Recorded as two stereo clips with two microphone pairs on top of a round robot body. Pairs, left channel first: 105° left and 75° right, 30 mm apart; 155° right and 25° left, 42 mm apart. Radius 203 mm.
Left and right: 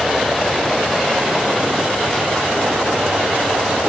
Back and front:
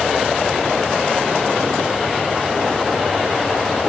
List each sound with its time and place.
Only background noise.